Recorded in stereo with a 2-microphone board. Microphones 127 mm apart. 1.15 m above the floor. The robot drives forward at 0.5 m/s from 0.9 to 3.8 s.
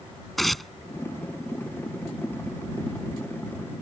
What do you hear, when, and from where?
0.4 s tearing paper: centre (ahead or behind)